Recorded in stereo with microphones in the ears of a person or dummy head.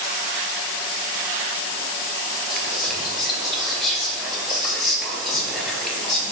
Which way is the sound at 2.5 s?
Centre (ahead or behind).